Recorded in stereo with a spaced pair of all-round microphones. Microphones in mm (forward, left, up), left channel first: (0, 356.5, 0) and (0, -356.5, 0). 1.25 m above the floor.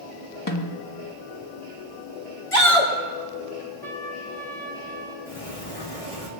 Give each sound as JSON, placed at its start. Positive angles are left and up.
{"t": 0.5, "sound": "a snare drum", "side_deg": 25, "distance_m": 1.3}
{"t": 2.5, "sound": "a shout", "side_deg": 50, "distance_m": 3.0}
{"t": 3.8, "sound": "a trumpet", "side_deg": 60, "distance_m": 2.0}
{"t": 5.3, "sound": "a sliding door", "side_deg": 85, "distance_m": 2.5}